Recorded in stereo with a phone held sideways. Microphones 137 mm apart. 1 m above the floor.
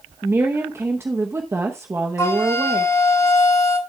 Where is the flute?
25° left (ahead or behind), 3 m.